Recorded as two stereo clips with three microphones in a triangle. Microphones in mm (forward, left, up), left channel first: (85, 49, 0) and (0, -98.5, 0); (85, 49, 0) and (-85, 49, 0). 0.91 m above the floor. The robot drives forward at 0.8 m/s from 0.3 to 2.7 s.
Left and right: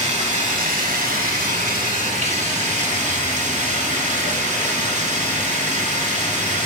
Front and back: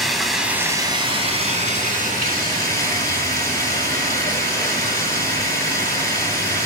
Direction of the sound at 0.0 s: 90° right.